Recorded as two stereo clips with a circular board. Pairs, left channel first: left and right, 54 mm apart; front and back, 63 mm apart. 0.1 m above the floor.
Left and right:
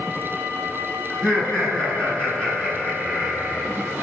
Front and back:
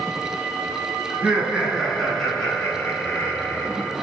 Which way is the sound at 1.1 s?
160° left.